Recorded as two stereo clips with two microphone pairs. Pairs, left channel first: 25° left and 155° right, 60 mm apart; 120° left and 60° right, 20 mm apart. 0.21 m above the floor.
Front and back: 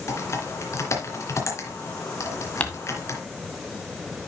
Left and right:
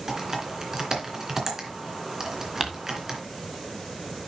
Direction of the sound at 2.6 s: 10° right.